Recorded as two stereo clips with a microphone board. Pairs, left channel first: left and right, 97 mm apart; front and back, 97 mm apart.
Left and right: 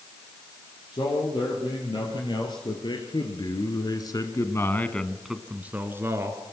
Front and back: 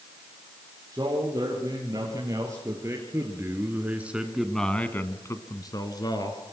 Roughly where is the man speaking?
Behind left.